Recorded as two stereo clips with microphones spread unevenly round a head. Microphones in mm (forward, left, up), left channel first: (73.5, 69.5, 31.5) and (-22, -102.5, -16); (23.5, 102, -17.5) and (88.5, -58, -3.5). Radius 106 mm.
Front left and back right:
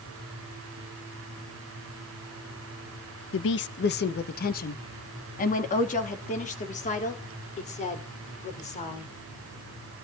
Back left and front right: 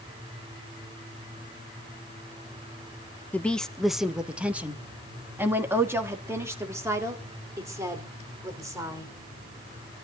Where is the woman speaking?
30° left, 0.9 m; by 9.1 s 5° left, 4.5 m.